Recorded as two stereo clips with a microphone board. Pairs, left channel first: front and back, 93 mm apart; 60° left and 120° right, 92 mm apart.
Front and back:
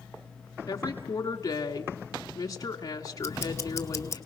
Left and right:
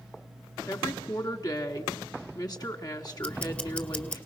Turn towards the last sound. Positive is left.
turn(degrees=-5)